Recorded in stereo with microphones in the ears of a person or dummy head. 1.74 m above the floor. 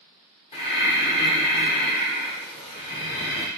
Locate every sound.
0.5 s breathing: 30° left (ahead or behind), 1.1 m